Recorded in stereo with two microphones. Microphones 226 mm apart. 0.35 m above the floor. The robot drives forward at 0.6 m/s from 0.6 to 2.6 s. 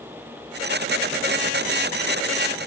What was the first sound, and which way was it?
Only background noise.